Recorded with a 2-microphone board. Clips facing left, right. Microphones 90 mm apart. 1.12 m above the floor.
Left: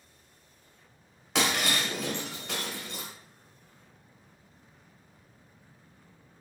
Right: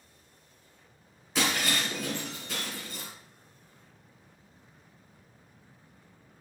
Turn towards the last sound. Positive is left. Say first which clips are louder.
# left 1 dB
turn(degrees=80)